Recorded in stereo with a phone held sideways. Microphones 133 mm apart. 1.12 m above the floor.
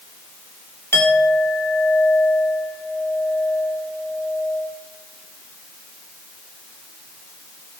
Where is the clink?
20° left (ahead or behind), 2.5 m.